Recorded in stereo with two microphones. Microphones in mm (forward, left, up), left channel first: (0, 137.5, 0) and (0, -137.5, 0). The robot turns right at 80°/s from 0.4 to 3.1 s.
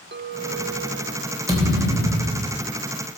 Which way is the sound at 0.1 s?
110° right.